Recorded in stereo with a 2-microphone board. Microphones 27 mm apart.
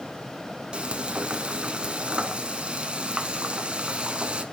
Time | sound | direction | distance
0.7 | frying | 40° right (ahead or behind) | 1.1 m